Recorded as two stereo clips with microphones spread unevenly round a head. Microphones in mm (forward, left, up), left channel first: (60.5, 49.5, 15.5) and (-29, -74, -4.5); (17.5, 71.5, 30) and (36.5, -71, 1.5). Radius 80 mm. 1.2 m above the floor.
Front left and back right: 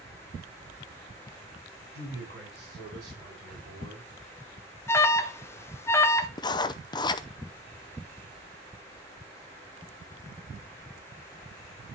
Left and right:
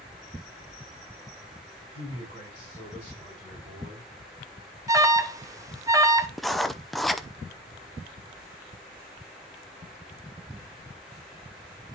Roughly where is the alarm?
Ahead.